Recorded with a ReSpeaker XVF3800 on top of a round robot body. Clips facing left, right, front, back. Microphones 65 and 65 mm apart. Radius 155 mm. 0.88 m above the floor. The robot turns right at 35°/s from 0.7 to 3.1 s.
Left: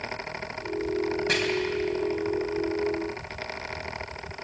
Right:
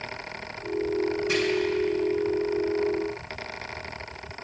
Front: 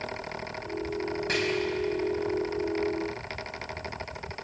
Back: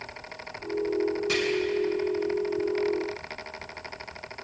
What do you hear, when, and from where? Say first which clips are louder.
1.3 s chopping: left 3 dB, back 2 dB; 55° left, 4.5 m